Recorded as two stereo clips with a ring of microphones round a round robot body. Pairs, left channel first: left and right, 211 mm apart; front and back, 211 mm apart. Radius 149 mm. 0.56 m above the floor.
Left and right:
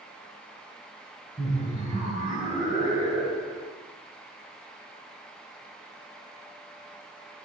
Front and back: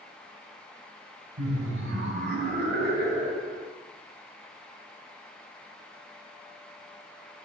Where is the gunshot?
I don't hear a gunshot.